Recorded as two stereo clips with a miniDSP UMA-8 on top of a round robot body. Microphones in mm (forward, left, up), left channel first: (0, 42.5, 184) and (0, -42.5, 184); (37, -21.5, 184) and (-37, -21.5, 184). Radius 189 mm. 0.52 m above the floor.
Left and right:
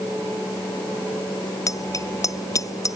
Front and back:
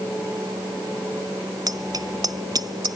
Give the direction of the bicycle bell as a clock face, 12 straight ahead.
7 o'clock.